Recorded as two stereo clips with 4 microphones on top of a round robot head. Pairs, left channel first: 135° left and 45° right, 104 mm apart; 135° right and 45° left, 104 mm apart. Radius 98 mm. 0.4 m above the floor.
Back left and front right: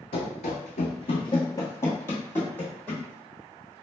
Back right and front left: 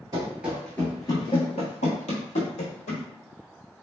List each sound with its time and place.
0.1 s running footsteps: 105° left, 0.6 m; by 3.1 s 145° right, 1.3 m